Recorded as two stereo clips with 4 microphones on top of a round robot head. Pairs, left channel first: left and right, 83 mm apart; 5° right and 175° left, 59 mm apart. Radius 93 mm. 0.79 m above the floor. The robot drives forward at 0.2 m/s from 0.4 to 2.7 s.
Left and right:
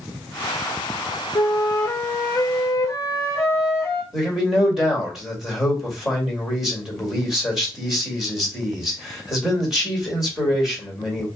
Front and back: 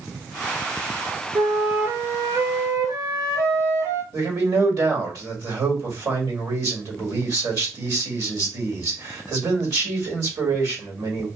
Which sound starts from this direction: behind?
A man speaking, at 4.1 s.